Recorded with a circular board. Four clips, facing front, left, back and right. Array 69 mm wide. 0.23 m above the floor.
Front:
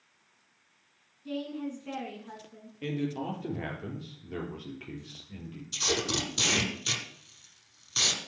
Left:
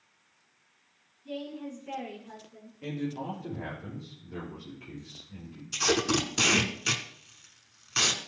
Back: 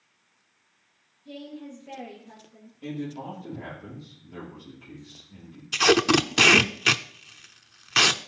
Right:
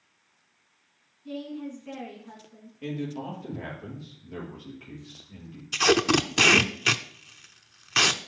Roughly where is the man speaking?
Ahead.